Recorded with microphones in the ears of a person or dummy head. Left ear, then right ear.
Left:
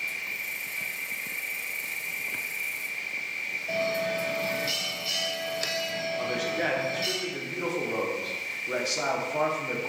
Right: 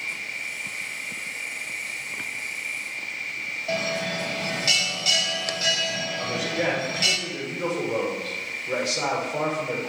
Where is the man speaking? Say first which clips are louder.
Right 1 dB; 10° left (ahead or behind), 1.2 m.